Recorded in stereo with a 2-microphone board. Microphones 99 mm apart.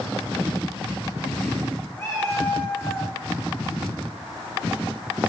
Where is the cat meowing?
25° left (ahead or behind), 5.5 m; by 3.1 s 30° left (ahead or behind), 4 m.